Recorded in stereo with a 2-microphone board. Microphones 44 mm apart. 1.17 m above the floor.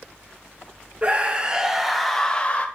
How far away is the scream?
About 1.6 m.